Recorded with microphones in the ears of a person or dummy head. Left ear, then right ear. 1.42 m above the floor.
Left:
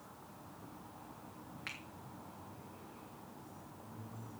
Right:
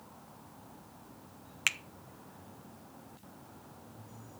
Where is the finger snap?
65° right (ahead or behind), 0.5 m.